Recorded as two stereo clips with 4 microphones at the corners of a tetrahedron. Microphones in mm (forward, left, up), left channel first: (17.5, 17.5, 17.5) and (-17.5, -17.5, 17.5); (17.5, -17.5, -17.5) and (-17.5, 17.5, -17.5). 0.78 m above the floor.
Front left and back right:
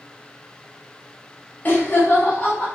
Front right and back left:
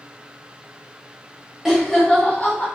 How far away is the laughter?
About 0.6 m.